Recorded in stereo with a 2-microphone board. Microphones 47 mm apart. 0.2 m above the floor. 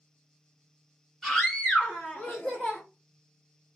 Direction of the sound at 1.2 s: 5° left (ahead or behind).